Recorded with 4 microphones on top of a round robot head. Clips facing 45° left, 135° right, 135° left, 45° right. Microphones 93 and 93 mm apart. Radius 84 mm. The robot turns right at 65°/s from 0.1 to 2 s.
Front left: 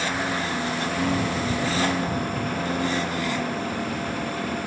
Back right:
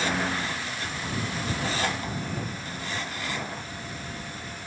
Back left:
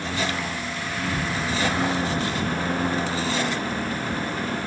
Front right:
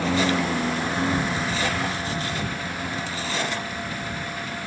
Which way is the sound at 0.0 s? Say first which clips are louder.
Front left 2 dB, front right 5 dB; 45° right.